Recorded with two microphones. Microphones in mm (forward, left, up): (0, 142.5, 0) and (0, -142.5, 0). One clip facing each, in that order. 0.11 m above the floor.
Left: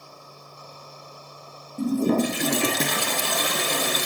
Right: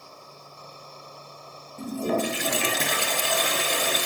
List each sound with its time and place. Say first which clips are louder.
1.8 s a toilet flushing: left 6 dB; 50° left (ahead or behind), 0.8 m